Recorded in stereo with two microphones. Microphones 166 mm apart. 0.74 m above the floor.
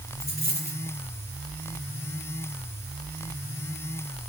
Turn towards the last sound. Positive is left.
turn(degrees=60)  # may be behind; listen again after turning